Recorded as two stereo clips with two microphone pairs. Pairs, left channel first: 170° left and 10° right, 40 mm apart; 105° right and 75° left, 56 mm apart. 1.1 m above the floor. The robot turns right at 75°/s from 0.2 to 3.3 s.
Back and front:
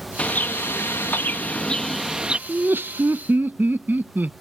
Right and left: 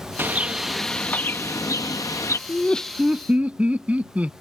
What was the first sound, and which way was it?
A bird, 120° left.